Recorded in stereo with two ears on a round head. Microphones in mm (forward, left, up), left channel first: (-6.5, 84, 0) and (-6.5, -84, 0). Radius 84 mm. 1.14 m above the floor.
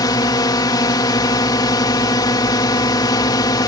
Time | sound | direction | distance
0.0 | a drone | 20° left (ahead or behind) | ?